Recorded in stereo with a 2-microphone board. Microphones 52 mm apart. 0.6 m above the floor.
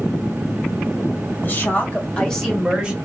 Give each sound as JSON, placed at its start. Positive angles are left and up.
{"t": 1.4, "sound": "a woman speaking", "side_deg": 45, "distance_m": 2.0}